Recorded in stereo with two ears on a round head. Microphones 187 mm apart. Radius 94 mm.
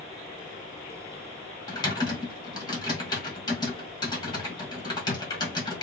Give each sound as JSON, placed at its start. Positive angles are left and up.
{"t": 1.7, "sound": "typing on a keyboard", "side_deg": 20, "distance_m": 1.6}